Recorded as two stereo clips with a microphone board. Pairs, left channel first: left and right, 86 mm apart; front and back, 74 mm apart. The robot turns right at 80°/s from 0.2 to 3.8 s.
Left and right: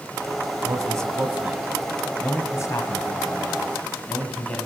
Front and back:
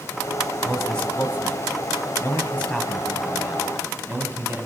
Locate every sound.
0.6 s a man speaking: 100° right, 1.3 m; by 4.7 s 155° left, 1.3 m